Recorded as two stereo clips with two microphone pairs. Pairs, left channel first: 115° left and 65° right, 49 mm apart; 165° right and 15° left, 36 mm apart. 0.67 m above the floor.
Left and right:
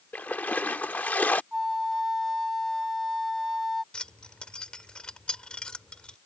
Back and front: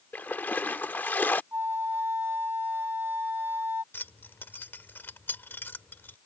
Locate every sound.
0.1 s a splash: 170° left
1.5 s a flute: 25° left
3.9 s keys jangling: 170° right